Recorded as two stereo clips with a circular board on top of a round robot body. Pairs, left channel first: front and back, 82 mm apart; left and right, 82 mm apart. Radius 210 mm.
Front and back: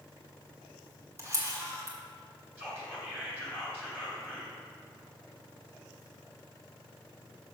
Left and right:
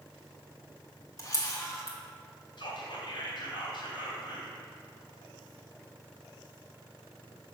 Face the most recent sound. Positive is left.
turn(degrees=115)